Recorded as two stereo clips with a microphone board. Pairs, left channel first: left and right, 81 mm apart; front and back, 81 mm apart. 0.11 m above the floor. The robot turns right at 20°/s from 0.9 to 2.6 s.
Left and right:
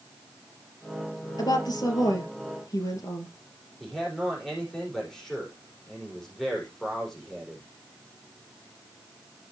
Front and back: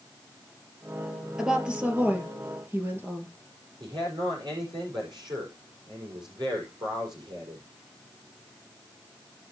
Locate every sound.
1.4 s a woman speaking: 100° left, 2 m; by 3.4 s 125° left, 2 m
3.8 s a man speaking: 175° left, 5 m